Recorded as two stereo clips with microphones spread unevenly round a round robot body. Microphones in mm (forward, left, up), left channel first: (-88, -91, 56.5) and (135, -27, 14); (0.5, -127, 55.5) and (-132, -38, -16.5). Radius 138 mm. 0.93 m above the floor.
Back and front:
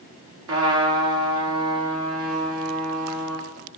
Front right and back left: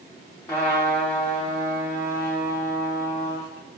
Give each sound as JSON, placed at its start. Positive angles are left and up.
{"t": 0.5, "sound": "a trumpet", "azimuth_deg": 50, "distance_m": 1.6}